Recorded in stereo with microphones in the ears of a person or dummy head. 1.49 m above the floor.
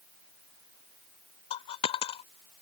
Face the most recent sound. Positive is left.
turn(degrees=30)  # may be behind; listen again after turning